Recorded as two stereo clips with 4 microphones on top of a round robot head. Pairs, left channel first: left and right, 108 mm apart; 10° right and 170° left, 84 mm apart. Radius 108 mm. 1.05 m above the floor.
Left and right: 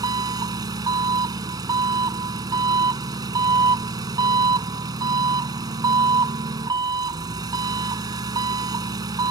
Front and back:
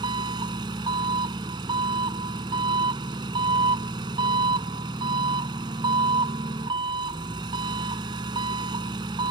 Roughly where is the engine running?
Behind right.